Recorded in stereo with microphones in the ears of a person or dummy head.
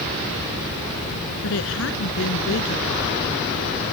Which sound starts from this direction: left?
A woman speaking, at 1.4 s.